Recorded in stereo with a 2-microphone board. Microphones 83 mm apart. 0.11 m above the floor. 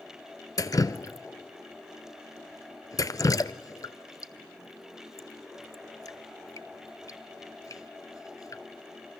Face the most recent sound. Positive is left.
turn(degrees=45)  # may be behind; listen again after turning